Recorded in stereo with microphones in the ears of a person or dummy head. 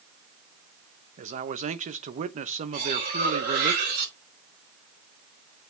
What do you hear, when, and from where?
1.2 s a man speaking: 40° right (ahead or behind), 0.9 m
2.7 s cutlery clinking: 55° right (ahead or behind), 4 m